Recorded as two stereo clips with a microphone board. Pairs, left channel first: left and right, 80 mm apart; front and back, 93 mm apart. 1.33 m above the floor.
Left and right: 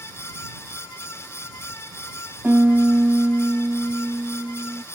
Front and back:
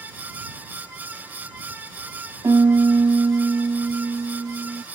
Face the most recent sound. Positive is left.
turn(degrees=-150)